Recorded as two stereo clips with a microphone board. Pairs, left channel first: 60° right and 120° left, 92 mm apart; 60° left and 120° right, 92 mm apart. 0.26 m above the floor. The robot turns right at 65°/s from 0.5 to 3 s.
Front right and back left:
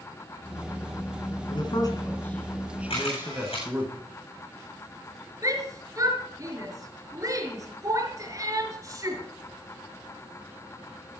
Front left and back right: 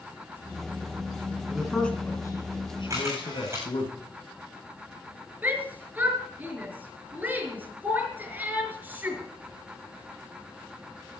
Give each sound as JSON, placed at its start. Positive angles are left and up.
{"t": 1.5, "sound": "a man speaking", "azimuth_deg": -40, "distance_m": 2.5}
{"t": 2.9, "sound": "a camera shutter", "azimuth_deg": -70, "distance_m": 8.0}
{"t": 5.4, "sound": "a shout", "azimuth_deg": 170, "distance_m": 4.5}